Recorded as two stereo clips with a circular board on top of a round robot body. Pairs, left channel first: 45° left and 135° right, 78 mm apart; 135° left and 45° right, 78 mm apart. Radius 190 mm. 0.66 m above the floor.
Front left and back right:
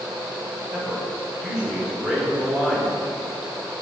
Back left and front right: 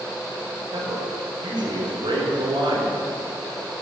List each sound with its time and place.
0.7 s a man speaking: 55° right, 3.5 m